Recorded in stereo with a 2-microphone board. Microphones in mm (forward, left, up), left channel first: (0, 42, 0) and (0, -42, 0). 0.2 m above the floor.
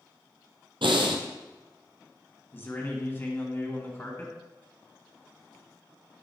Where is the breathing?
80° right, 1.4 m.